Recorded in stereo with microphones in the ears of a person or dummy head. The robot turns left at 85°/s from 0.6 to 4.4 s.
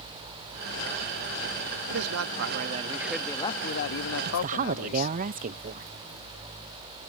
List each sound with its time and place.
1.9 s a man speaking: 75° right; by 5.2 s 70° left
4.2 s a woman speaking: 50° right (ahead or behind); by 5.9 s 40° right (ahead or behind)